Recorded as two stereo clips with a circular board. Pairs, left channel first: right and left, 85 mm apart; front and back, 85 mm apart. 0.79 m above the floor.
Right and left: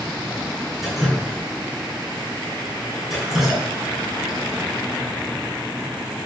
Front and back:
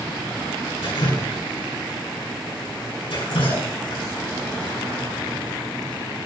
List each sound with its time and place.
0.8 s dripping: 5° left, 5.5 m